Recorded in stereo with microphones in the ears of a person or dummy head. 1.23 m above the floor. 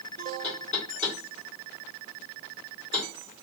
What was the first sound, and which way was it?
Knocking, 40° left (ahead or behind).